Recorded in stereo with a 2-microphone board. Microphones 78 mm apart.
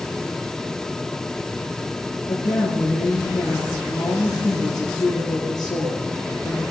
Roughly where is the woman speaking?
Left.